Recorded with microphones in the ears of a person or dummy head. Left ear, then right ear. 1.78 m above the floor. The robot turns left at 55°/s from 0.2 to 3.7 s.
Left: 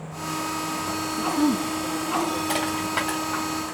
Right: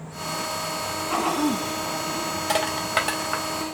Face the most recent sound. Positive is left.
turn(degrees=-45)  # may be behind; listen again after turning